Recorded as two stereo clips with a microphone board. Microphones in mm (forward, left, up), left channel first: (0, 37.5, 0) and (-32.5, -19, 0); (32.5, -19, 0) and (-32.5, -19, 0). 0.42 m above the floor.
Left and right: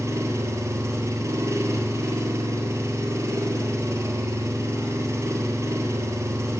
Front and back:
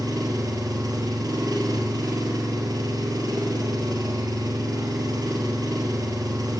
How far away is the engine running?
About 4 m.